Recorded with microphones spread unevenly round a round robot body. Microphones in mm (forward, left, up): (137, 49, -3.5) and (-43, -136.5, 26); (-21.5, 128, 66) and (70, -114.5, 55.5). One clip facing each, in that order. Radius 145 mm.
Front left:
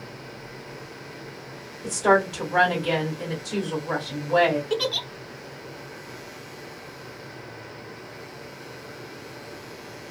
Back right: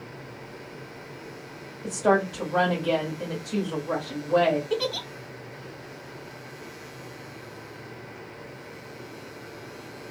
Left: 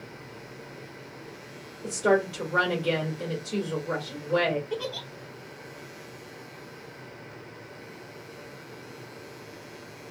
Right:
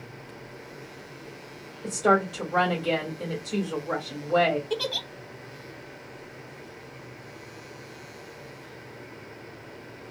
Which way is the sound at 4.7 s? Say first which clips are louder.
Front left 1 dB, right 2 dB; 25° right.